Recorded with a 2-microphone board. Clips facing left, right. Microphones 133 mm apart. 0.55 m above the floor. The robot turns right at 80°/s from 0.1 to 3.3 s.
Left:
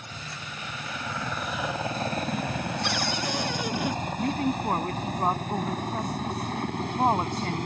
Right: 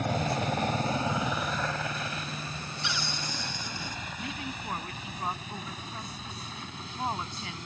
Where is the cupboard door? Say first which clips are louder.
Left 5 dB; 55° left; by 4.0 s 95° left.